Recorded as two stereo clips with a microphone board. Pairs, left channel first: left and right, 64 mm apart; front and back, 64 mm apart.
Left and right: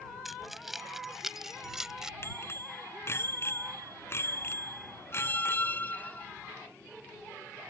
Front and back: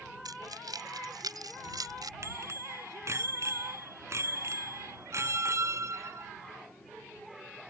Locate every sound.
0.2 s keys jangling: straight behind; by 2.1 s 170° right
2.2 s a bicycle bell: 140° left
5.1 s a squeak: 150° left